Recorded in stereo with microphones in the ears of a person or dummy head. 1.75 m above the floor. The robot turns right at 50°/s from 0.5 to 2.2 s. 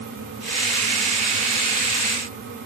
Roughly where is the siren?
No siren in this recording.